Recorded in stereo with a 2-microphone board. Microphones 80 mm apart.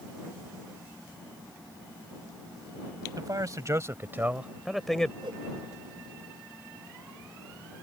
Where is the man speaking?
50° right (ahead or behind); by 5.1 s 10° left (ahead or behind).